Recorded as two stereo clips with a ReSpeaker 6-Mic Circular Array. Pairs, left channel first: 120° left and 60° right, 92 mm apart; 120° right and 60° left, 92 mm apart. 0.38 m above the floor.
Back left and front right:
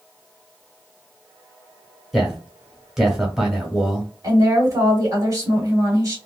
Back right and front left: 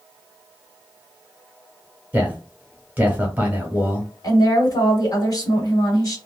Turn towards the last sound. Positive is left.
turn(degrees=-100)